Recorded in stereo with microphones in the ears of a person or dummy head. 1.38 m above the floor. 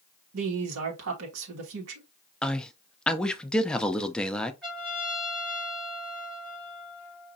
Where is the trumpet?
5° left (ahead or behind), 2.5 m.